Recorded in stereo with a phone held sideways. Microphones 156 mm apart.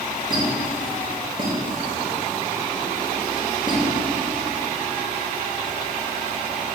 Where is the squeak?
30° right (ahead or behind), 0.6 m.